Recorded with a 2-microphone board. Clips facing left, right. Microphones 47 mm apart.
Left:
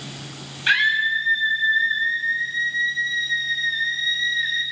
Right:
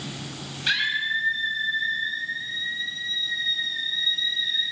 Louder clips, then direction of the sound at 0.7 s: Left 6 dB; 30° left (ahead or behind).